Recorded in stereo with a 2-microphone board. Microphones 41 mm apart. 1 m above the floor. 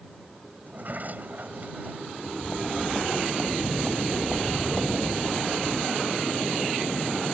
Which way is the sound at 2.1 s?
25° right (ahead or behind).